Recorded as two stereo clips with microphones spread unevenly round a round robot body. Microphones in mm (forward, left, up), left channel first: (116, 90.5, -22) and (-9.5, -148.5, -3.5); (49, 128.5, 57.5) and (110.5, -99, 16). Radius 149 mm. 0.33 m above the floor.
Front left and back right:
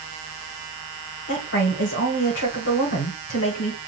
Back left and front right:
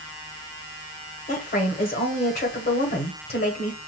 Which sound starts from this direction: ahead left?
A woman speaking, at 1.3 s.